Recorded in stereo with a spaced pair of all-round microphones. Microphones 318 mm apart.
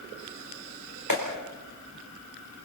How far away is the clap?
About 4.5 m.